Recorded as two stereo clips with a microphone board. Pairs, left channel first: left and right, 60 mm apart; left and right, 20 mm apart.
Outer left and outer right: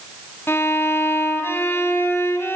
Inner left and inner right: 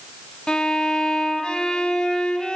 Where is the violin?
40° left (ahead or behind), 3.5 m.